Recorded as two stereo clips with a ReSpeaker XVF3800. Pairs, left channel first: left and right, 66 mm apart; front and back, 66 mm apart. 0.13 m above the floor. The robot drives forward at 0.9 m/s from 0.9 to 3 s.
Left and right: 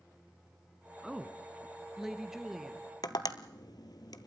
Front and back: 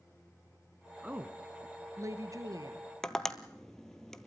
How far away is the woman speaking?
About 1.0 m.